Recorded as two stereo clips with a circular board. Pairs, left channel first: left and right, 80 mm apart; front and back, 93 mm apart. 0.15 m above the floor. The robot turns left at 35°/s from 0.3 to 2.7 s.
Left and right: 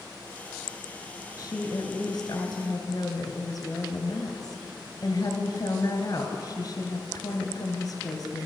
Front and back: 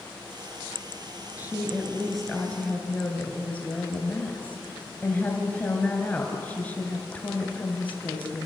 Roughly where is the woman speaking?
Behind left.